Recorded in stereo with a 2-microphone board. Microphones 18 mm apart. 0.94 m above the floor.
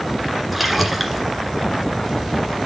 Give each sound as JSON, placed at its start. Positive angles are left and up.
{"t": 0.5, "sound": "a splash", "side_deg": -5, "distance_m": 1.8}